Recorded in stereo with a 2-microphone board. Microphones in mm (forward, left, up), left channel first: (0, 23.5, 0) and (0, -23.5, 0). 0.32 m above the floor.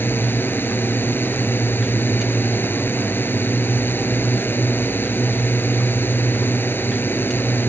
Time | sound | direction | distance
0.0 | a drone | 50° left (ahead or behind) | ?